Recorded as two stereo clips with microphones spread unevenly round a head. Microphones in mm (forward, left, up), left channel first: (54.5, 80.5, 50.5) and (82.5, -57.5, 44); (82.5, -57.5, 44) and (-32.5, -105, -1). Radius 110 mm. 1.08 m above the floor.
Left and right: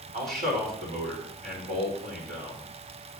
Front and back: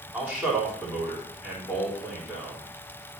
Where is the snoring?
I don't hear snoring.